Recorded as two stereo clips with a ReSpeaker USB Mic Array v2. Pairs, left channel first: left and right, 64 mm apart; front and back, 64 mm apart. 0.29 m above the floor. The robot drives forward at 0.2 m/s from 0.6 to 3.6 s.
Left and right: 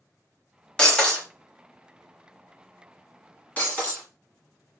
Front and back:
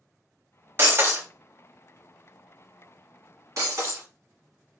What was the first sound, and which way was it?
Breaking glass, 160° left.